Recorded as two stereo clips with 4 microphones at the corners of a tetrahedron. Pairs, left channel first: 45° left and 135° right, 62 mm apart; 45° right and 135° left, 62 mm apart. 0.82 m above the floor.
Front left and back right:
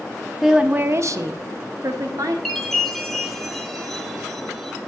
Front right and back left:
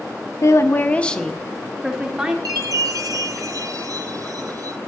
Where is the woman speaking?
50° right, 0.6 m; by 2.4 s 150° right, 1.8 m.